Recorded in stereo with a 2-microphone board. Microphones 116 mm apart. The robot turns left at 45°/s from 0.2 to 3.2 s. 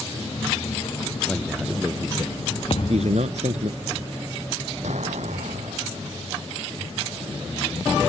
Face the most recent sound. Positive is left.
turn(degrees=-80)